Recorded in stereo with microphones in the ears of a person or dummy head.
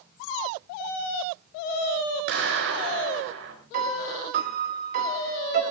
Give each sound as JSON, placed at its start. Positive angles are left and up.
{"t": 2.3, "sound": "a clap", "side_deg": -60, "distance_m": 6.0}
{"t": 3.7, "sound": "a piano", "side_deg": -50, "distance_m": 2.5}